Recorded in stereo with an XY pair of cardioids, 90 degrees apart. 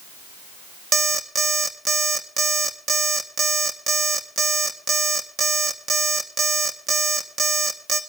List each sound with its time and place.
0.9 s an alarm clock: 60° right, 2.0 m